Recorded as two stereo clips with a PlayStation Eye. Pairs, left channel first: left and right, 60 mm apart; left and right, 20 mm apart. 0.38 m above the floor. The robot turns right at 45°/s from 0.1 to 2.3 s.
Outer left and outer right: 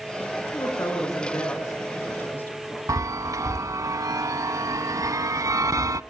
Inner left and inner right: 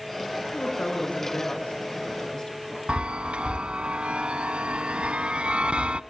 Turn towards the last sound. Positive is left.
turn(degrees=-80)